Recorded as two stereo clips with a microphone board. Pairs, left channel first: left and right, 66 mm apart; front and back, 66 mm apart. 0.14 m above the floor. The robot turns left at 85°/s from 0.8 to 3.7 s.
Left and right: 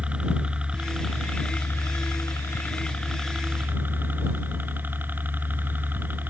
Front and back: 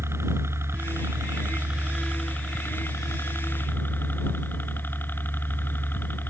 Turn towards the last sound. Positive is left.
turn(degrees=-45)